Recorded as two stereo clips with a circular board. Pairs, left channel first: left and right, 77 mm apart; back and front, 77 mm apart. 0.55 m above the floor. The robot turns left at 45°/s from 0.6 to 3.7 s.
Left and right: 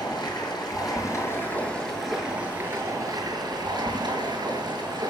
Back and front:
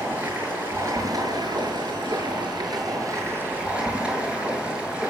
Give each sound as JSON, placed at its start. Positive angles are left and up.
{"t": 0.0, "sound": "running water", "azimuth_deg": 65, "distance_m": 7.0}